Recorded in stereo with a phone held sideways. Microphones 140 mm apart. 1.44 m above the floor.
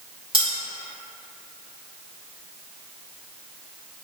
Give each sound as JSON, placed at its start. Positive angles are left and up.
{"t": 0.3, "sound": "cutlery clinking", "side_deg": -40, "distance_m": 1.6}